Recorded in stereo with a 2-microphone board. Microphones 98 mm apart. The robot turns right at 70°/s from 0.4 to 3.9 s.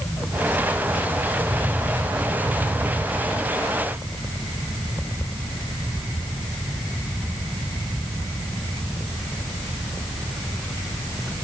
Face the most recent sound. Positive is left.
No sound to turn to.